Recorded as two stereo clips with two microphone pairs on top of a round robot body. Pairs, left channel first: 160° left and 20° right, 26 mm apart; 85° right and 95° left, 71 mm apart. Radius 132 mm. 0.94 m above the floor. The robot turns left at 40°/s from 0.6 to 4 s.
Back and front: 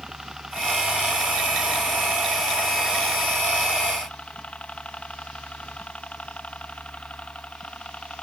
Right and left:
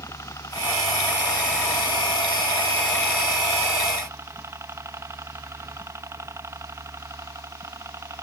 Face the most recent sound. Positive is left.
turn(degrees=135)